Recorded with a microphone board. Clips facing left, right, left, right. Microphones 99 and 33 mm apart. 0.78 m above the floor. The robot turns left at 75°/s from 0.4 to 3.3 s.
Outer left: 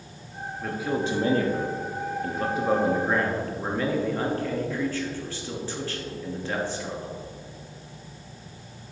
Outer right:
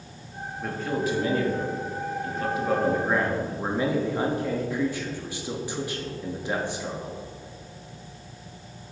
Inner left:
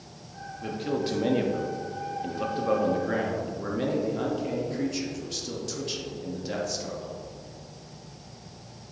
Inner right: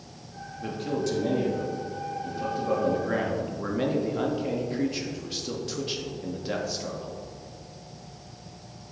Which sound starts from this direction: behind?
A man speaking, at 0.6 s.